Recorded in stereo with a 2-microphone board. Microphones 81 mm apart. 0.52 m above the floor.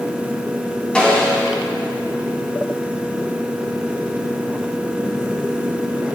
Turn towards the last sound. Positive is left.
turn(degrees=10)  # may be behind; listen again after turning